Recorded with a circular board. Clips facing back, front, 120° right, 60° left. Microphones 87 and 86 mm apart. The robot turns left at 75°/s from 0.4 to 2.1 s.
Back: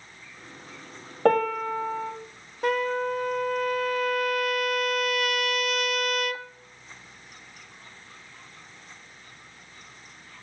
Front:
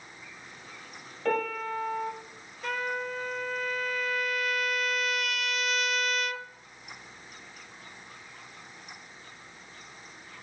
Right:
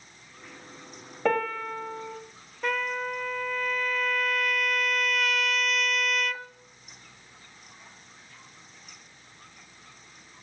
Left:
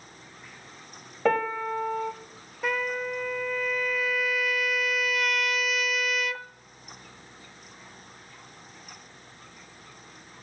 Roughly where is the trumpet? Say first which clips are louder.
Back 7 dB, even; behind left.